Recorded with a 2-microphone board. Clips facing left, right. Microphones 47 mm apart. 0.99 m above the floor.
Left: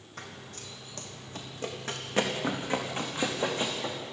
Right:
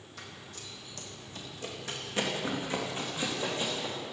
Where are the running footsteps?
50° left (ahead or behind), 2.5 m; by 4.0 s 45° left (ahead or behind), 4.5 m.